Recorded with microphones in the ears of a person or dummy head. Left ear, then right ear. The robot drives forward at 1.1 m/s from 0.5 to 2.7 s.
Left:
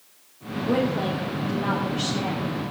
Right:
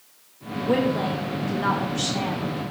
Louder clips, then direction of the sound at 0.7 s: Right 1 dB; 70° right (ahead or behind).